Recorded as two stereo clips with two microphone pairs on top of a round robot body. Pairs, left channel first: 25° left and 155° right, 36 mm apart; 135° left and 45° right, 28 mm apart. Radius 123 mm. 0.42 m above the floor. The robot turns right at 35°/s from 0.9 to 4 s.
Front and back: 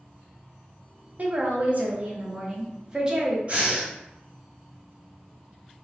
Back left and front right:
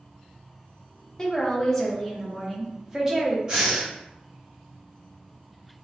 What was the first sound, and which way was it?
A woman speaking, 160° right.